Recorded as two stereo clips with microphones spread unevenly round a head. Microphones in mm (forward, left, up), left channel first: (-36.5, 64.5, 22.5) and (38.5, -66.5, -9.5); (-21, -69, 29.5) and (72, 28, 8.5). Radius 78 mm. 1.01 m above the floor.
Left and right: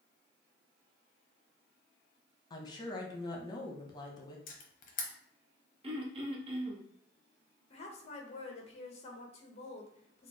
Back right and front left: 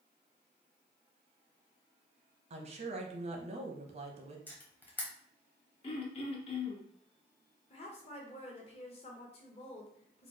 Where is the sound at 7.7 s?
175° left, 0.9 m.